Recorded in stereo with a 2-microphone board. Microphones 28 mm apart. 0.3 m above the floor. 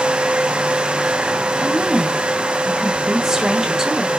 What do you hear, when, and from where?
1.6 s a woman speaking: 20° right (ahead or behind), 1.5 m